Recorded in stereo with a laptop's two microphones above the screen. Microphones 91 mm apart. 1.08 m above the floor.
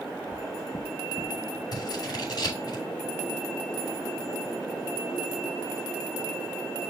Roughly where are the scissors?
Left.